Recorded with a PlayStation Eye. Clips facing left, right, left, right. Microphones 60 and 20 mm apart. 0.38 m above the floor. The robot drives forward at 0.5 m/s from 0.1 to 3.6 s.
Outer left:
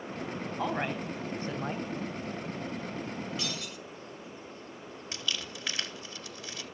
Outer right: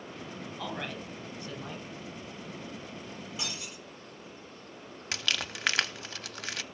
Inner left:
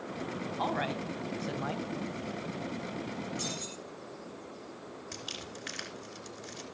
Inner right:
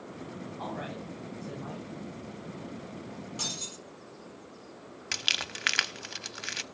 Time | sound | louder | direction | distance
0.6 | a woman speaking | outer left 6 dB, inner left 6 dB | 30° left (ahead or behind) | 2.5 m
3.4 | breaking glass | outer left 3 dB, inner right 2 dB | 15° right (ahead or behind) | 5.5 m
5.1 | crumpling | outer right 4 dB, inner right 14 dB | 80° right | 0.7 m